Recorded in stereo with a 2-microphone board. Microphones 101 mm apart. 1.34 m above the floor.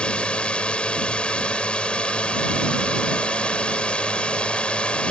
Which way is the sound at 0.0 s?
10° left (ahead or behind).